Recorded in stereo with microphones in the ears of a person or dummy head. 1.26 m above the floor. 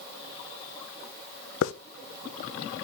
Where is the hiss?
75° left (ahead or behind), 0.6 m.